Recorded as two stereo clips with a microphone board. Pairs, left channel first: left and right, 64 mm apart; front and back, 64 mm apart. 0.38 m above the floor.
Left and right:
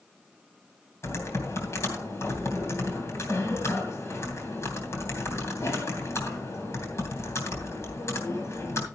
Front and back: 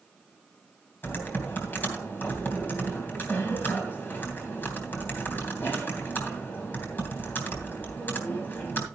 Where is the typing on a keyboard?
55° left, 3 m.